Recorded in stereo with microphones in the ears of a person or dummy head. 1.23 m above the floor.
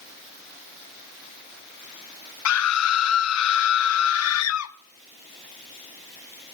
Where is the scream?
85° left, 0.7 m.